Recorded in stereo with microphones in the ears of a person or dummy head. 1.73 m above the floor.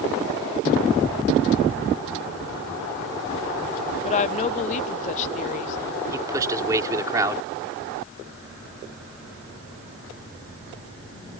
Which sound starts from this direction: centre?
A man speaking, at 6.1 s.